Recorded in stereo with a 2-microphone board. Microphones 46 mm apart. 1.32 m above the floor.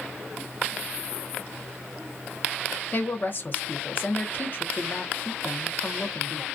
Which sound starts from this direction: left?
A woman speaking, at 2.9 s.